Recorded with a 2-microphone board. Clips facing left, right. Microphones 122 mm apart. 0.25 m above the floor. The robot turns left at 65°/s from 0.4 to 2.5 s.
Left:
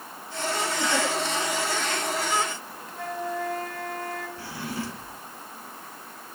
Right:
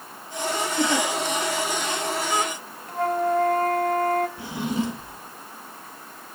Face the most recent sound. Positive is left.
turn(degrees=-20)  # may be behind; listen again after turning